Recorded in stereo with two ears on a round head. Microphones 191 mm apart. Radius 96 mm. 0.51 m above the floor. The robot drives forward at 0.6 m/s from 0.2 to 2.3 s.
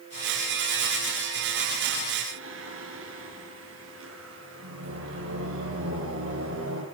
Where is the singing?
65° right (ahead or behind), 7.5 m.